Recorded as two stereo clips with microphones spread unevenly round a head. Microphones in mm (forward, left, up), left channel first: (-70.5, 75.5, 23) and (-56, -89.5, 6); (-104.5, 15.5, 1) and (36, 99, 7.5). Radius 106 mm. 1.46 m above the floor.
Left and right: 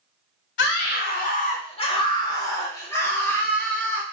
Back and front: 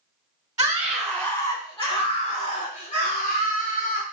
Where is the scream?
100° left, 0.7 m; by 4.0 s straight behind, 2 m.